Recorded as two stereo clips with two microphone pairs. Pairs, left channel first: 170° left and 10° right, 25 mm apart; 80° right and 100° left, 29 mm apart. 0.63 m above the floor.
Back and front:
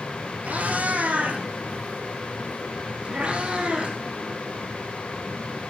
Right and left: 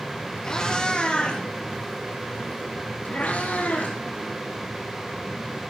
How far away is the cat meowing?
About 5 m.